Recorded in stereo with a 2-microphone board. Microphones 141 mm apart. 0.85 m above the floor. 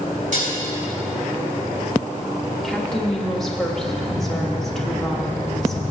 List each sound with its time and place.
0.3 s dishes clattering: 65° right (ahead or behind), 3.5 m
2.6 s a woman speaking: centre (ahead or behind), 1.5 m